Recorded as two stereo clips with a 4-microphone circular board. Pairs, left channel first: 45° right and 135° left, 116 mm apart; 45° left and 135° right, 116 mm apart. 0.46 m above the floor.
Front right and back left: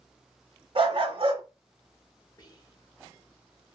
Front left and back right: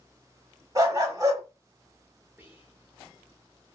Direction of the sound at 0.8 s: 170° left.